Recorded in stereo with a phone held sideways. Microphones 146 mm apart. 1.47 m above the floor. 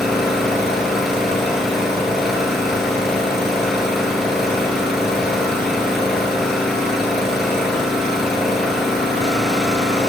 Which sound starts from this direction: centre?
An engine running, at 0.0 s.